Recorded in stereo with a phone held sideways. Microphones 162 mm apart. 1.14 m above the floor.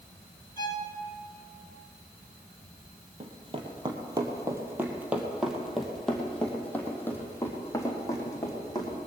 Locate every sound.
0.6 s a violin: 25° left (ahead or behind), 2.5 m
3.2 s running footsteps: 35° right (ahead or behind), 2.0 m; by 9.0 s 25° left (ahead or behind), 3.5 m